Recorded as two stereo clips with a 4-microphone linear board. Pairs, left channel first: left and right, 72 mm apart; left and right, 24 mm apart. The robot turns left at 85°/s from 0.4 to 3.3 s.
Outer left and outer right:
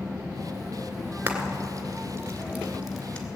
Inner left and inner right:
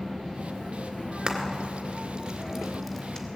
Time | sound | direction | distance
1.3 | frying | 25° right (ahead or behind) | 2 m